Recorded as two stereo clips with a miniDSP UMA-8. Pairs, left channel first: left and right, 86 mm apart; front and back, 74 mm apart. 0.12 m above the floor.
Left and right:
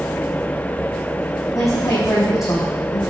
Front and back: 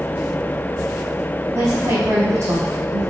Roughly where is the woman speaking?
Behind left.